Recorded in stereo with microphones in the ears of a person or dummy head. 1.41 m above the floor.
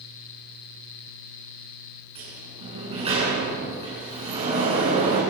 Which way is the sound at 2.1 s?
30° right (ahead or behind).